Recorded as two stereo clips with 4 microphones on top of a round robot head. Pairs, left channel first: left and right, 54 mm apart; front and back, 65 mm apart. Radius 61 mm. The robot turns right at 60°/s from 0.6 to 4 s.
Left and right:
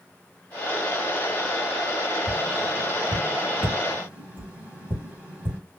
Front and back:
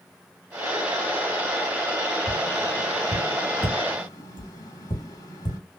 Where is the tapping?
125° right, 3 m; by 5.6 s 25° right, 3 m.